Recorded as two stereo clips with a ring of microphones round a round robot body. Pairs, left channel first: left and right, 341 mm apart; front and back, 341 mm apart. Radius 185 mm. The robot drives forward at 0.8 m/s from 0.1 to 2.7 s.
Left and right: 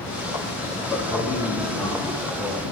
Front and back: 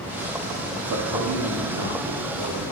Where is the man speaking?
170° left, 1.0 m; by 2.7 s straight behind, 2 m.